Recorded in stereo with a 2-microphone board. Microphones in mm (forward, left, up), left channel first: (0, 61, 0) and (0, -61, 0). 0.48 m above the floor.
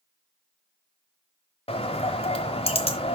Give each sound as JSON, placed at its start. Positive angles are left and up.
{"t": 1.7, "sound": "a bird", "side_deg": 50, "distance_m": 0.9}